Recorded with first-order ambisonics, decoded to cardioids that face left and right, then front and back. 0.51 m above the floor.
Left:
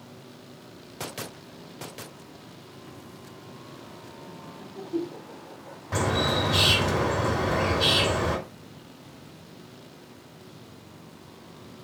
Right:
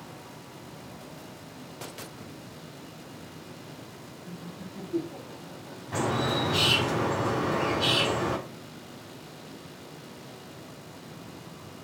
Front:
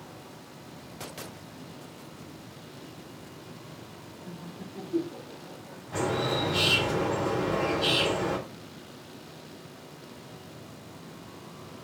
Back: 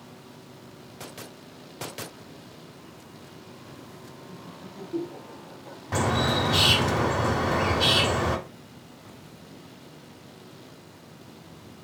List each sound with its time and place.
4.2 s laughter: 25° right, 1.3 m; by 5.8 s 150° left, 1.3 m
5.9 s a bird: 160° left, 1.0 m